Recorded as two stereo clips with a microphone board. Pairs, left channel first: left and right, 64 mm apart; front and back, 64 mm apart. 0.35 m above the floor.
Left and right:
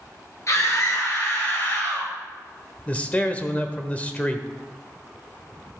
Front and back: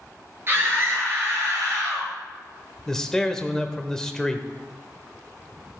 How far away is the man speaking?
About 0.9 m.